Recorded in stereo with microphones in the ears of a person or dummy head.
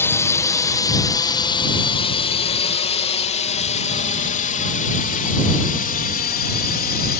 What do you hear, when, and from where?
0.0 s a drone: 10° left (ahead or behind); by 7.2 s 50° left (ahead or behind)